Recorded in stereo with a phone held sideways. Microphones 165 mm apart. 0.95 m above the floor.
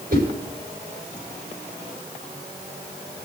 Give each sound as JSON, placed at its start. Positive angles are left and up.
{"t": 0.1, "sound": "a whoosh", "side_deg": -75, "distance_m": 4.5}